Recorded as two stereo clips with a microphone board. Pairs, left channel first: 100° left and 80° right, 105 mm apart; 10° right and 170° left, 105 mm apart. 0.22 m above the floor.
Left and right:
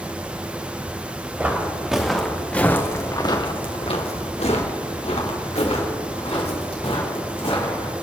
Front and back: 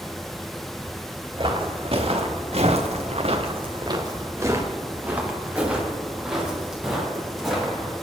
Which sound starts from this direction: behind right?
Footsteps, at 1.4 s.